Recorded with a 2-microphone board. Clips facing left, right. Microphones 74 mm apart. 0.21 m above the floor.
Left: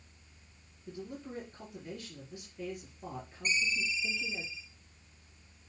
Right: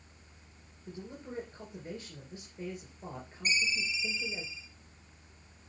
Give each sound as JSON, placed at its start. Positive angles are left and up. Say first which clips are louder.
{"t": 0.9, "sound": "a man speaking", "louder": "left 1 dB", "side_deg": -25, "distance_m": 3.5}
{"t": 3.5, "sound": "a ringtone", "louder": "even", "side_deg": -5, "distance_m": 1.6}